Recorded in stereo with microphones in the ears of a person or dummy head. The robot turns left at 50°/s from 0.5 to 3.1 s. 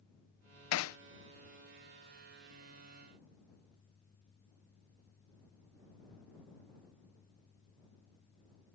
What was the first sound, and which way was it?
Hammering, 80° left.